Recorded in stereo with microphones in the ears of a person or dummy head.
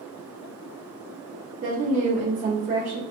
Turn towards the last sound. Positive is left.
turn(degrees=-35)  # may be behind; listen again after turning